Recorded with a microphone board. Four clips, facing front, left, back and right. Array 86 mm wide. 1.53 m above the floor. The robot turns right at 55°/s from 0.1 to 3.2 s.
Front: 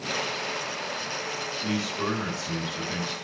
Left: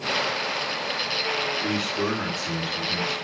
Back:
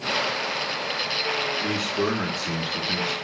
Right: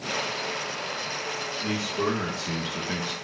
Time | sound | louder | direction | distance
1.6 | a man speaking | right 3 dB, back 1 dB | 160° left | 1.6 m